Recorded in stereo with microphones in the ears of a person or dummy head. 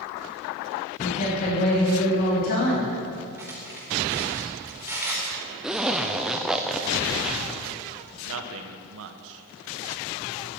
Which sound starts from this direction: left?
A woman speaking, at 1.0 s.